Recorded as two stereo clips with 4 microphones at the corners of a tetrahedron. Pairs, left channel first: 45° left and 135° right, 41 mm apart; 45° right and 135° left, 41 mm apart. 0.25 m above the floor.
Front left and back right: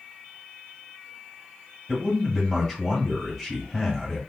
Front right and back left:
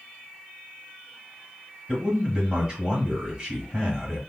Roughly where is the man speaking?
Behind left.